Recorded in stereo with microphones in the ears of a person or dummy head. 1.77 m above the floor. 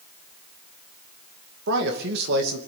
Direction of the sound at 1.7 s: 60° right (ahead or behind).